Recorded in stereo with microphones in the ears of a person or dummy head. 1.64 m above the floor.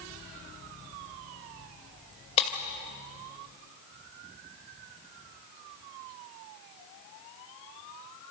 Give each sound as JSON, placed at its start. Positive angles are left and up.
{"t": 2.4, "sound": "breaking glass", "side_deg": 35, "distance_m": 2.5}